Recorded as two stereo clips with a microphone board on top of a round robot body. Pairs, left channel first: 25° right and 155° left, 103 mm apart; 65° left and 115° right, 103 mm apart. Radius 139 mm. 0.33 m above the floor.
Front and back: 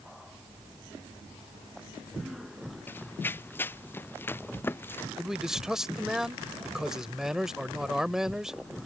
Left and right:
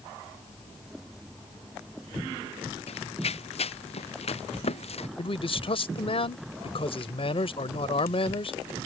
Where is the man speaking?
70° left.